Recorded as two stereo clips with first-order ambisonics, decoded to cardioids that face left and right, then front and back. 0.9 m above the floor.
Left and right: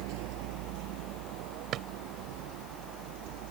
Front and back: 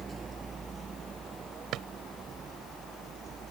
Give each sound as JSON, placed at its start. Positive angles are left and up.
{"t": 0.0, "sound": "a vehicle", "azimuth_deg": -105}
{"t": 1.7, "sound": "a drawer", "azimuth_deg": -135}